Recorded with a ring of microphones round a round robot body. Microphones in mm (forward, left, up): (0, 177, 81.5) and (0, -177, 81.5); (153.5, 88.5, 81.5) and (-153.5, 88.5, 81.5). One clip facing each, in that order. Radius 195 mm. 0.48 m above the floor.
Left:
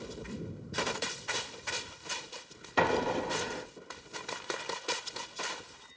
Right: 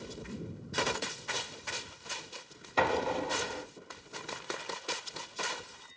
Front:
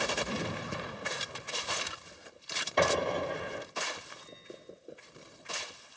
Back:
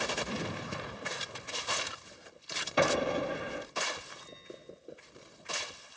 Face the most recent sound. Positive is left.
turn(degrees=110)